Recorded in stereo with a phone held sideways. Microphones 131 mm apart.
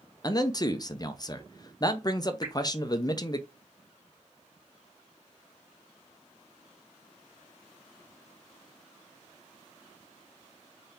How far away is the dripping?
About 1.7 m.